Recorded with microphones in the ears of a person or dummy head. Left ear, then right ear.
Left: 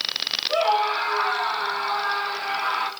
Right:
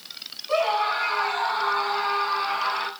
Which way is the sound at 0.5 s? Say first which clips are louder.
Even; 40° right (ahead or behind).